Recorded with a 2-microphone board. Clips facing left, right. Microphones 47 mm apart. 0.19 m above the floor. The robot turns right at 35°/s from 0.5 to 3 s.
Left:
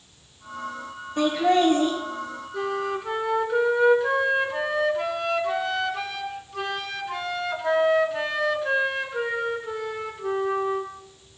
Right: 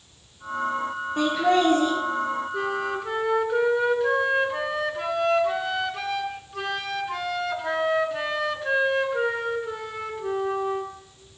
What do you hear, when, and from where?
1.2 s laughter: 20° right (ahead or behind), 1.8 m; by 1.9 s centre (ahead or behind), 1.8 m
2.5 s a flute: 15° right (ahead or behind), 0.9 m; by 10.9 s centre (ahead or behind), 0.9 m